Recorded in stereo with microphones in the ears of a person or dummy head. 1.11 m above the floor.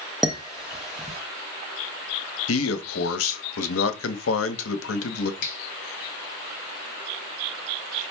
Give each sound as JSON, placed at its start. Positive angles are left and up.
{"t": 0.2, "sound": "dishes clattering", "side_deg": 5, "distance_m": 0.9}
{"t": 2.5, "sound": "a man speaking", "side_deg": 85, "distance_m": 0.8}
{"t": 5.4, "sound": "a finger snap", "side_deg": 65, "distance_m": 1.2}